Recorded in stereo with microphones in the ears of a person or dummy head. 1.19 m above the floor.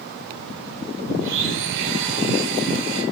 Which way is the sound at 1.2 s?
70° right (ahead or behind).